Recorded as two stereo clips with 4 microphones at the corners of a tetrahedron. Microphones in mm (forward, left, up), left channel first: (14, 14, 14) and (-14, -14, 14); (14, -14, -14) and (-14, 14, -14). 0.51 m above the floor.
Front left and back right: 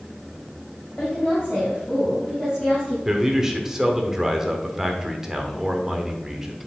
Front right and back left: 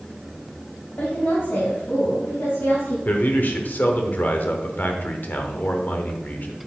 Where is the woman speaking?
15° right, 3 m; by 3.0 s 30° right, 5 m.